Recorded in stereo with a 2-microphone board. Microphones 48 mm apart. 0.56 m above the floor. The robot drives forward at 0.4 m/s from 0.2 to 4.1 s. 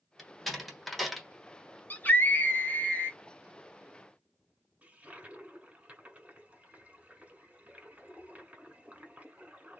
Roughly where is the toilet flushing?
Right.